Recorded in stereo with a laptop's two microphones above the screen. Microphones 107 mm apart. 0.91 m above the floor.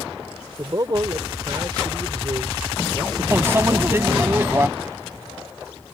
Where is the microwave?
20° right (ahead or behind).